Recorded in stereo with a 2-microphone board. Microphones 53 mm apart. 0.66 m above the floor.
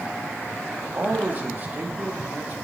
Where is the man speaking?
35° right (ahead or behind), 1.0 m.